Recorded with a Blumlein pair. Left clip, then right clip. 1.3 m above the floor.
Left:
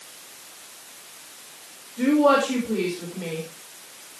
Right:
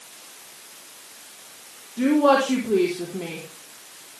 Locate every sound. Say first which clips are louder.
2.0 s a woman speaking: even; 65° right, 3.5 m